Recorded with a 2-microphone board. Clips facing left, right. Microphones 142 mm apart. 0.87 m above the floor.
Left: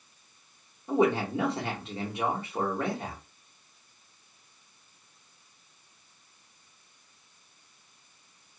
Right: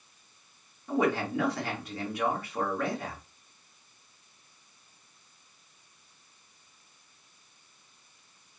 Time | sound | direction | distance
0.9 | a man speaking | 25° left (ahead or behind) | 1.4 m